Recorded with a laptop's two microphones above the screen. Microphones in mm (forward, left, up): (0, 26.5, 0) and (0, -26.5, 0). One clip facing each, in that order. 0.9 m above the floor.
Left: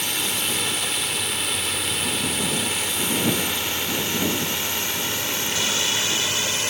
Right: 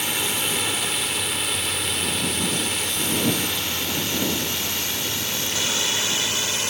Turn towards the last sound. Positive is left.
turn(degrees=30)  # may be behind; listen again after turning